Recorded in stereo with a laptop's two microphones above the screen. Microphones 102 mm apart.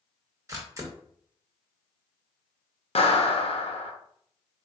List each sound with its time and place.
0.5 s a camera shutter: 30° right (ahead or behind), 1.0 m
3.0 s a clap: 70° left (ahead or behind), 0.9 m